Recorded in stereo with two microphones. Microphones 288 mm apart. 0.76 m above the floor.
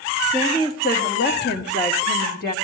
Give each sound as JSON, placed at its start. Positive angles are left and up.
{"t": 0.3, "sound": "a woman speaking", "side_deg": 25, "distance_m": 1.7}